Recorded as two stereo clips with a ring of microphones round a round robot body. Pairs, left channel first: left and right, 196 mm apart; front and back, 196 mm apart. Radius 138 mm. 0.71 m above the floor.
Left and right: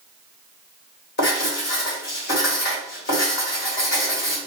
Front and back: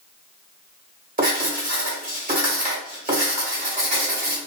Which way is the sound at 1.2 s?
135° left.